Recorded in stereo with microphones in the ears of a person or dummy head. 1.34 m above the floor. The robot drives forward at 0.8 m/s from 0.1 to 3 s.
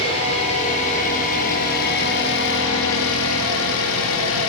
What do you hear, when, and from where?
0.0 s an engine running: 30° left (ahead or behind), 3 m; by 4.5 s 75° left (ahead or behind), 1.8 m